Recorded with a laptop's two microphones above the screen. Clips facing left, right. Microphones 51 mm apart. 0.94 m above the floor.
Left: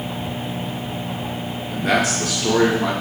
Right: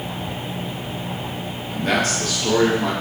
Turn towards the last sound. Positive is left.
turn(degrees=10)  # may be behind; listen again after turning